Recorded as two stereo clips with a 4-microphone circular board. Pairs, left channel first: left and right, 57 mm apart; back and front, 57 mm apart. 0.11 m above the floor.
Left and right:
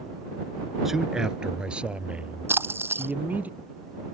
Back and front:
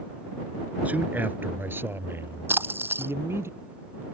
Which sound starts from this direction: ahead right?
A splash, at 2.5 s.